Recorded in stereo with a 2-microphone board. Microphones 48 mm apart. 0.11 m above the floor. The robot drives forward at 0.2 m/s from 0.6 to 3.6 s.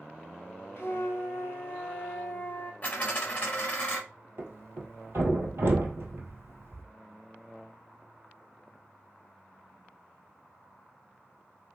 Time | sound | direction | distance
0.8 | a flute | 65° left (ahead or behind) | 0.6 m
2.8 | a dropped coin | 30° left (ahead or behind) | 0.9 m
4.4 | a thud | 55° right (ahead or behind) | 1.4 m